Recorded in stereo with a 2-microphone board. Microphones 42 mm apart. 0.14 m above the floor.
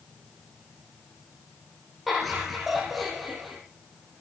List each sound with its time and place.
2.1 s laughter: centre (ahead or behind), 6.5 m